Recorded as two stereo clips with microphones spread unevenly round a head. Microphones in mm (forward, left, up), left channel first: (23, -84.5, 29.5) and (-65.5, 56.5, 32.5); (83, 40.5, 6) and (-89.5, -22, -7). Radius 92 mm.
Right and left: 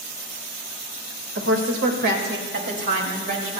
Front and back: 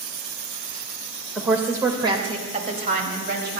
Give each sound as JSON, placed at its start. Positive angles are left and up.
{"t": 1.4, "sound": "a woman speaking", "azimuth_deg": 115, "distance_m": 2.0}